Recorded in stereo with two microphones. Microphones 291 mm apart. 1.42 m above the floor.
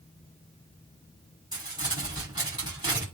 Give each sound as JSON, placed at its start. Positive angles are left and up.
{"t": 1.5, "sound": "crumpling", "side_deg": -15, "distance_m": 7.0}